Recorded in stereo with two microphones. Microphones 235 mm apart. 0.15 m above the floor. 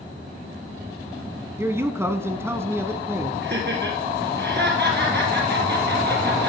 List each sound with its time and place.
1.6 s a man speaking: 10° right (ahead or behind), 1.1 m
3.4 s laughter: 50° right (ahead or behind), 3 m